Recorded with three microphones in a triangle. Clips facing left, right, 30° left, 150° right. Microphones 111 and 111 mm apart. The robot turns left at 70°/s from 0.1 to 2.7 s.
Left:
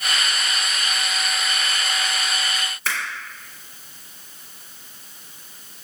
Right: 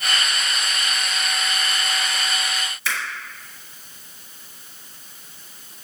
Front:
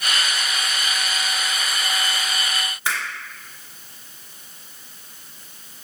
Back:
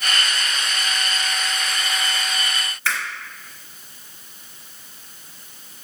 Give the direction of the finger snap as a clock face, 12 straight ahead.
9 o'clock.